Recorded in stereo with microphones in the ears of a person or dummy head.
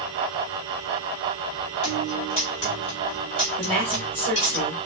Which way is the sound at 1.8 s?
30° left (ahead or behind).